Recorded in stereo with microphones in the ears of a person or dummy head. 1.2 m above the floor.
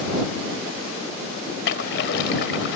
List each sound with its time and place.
1.6 s a splash: 70° left (ahead or behind)